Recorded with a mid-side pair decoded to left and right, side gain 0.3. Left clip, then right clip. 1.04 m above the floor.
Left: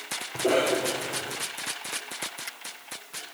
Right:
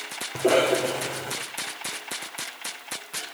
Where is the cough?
45° right, 5 m.